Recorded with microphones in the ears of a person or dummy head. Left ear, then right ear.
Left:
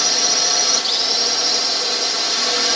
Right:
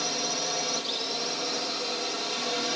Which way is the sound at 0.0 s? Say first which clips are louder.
Left 12 dB; 50° left (ahead or behind).